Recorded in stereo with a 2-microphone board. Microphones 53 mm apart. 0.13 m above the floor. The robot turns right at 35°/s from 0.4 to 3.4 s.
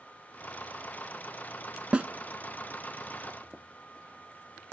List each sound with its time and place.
1.9 s a snare drum: 20° right (ahead or behind), 0.7 m; by 2.1 s 25° right (ahead or behind), 0.7 m